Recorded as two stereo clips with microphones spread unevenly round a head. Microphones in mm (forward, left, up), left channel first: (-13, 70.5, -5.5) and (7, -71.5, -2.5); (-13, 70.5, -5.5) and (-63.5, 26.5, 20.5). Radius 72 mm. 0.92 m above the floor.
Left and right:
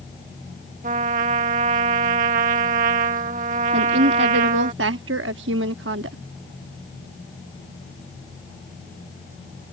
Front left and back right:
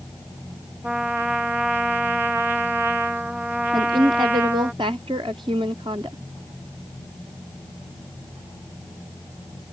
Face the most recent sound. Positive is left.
turn(degrees=-80)